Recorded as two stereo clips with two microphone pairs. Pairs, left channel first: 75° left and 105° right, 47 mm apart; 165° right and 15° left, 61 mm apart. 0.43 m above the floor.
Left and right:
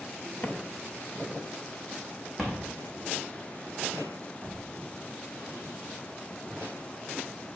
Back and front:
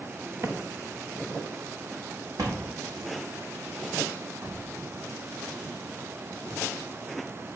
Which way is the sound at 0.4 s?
40° left.